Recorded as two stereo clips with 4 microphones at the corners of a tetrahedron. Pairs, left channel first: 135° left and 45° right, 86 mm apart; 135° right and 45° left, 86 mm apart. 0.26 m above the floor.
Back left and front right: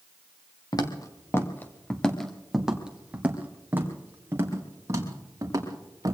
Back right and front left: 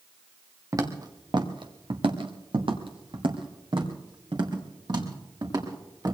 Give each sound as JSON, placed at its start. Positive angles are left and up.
{"t": 0.7, "sound": "footsteps", "azimuth_deg": 95, "distance_m": 1.9}